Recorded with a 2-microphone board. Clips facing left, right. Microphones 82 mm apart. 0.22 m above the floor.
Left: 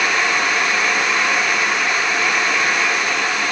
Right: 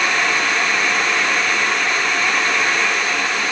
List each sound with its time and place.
Only background noise.